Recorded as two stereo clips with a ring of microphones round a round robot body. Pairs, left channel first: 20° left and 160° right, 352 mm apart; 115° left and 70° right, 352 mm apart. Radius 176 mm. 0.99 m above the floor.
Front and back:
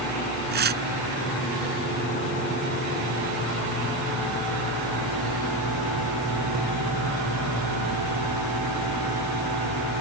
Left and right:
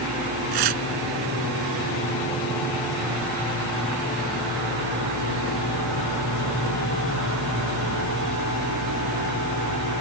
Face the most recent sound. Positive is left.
turn(degrees=-95)